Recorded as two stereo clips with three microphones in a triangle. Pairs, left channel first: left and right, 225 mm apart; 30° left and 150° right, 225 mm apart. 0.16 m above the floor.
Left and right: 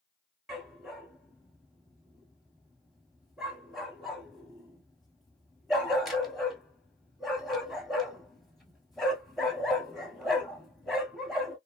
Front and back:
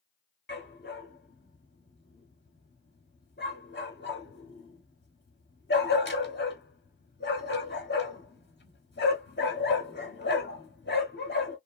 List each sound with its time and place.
0.5 s a dog barking: straight ahead, 0.9 m